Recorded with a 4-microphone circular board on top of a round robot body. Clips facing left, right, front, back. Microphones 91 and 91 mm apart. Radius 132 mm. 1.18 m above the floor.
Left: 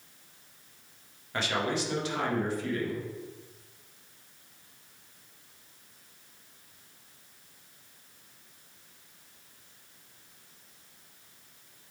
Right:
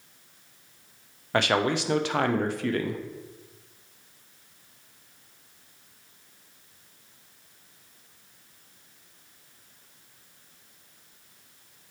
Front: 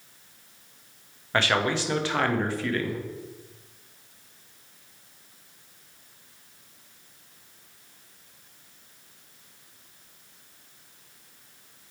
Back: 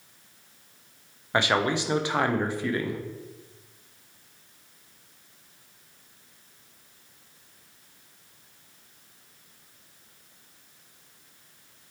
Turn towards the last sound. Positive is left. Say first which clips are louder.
# right 6 dB, even
turn(degrees=-105)